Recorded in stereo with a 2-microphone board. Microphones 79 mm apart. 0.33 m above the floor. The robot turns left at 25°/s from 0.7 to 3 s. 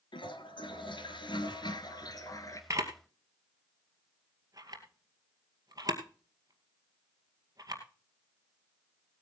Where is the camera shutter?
40° right (ahead or behind), 2 m; by 7.8 s 45° right (ahead or behind), 2 m.